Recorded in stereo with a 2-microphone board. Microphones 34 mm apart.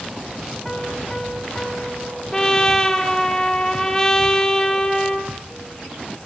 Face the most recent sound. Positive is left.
turn(degrees=15)  # may be behind; listen again after turning